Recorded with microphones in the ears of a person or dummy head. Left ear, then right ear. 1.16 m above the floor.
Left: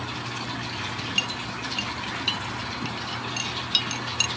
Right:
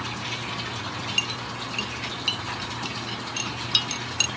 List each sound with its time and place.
1.2 s a clink: 5° left (ahead or behind)